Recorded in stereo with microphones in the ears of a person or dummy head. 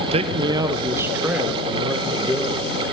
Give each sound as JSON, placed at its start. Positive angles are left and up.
{"t": 0.1, "sound": "a man speaking", "side_deg": -35, "distance_m": 0.7}